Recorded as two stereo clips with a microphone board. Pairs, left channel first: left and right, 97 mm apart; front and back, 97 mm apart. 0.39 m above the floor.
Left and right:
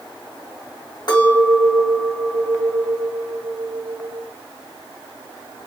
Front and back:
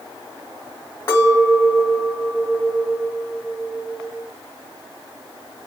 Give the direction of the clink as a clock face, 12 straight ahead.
10 o'clock.